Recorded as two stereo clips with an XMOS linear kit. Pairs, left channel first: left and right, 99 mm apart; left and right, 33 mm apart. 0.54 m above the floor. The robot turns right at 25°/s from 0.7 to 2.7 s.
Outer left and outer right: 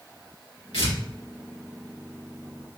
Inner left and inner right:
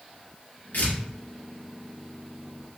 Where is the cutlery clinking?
I don't hear cutlery clinking.